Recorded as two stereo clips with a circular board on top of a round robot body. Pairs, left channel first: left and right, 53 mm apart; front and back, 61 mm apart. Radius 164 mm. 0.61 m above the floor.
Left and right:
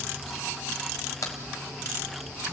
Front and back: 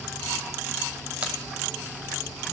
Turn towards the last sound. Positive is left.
turn(degrees=110)